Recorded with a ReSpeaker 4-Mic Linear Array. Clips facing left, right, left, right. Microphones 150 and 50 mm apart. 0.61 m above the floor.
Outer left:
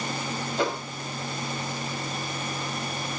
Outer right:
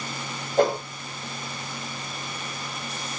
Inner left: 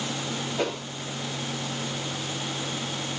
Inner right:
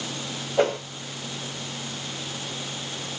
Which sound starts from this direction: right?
A whoosh, at 0.6 s.